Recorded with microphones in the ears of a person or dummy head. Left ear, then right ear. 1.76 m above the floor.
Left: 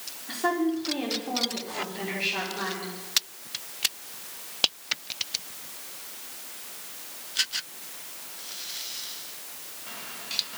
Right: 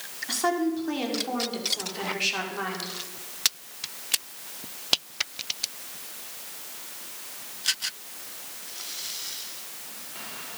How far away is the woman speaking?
About 5 m.